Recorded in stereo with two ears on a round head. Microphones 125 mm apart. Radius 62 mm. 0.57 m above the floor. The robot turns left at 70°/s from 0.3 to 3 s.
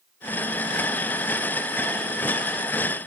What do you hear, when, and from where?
Only background noise.